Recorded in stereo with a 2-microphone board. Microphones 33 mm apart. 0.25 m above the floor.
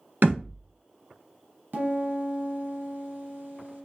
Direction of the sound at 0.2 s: 80° right.